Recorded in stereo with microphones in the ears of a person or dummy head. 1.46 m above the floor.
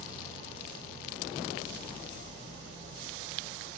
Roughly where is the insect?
Right.